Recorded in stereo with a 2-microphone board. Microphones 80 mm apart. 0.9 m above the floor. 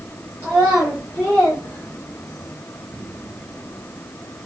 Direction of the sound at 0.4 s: 20° right (ahead or behind).